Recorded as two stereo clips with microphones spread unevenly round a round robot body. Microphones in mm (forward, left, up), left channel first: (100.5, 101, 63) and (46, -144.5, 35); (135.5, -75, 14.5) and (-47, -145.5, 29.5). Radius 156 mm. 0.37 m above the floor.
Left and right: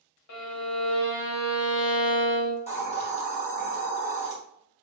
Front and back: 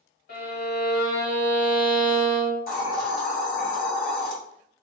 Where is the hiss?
15° left, 1.4 m.